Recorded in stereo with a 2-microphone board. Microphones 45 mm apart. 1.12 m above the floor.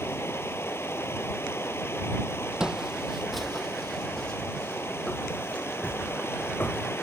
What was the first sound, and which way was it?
Running water, 80° left.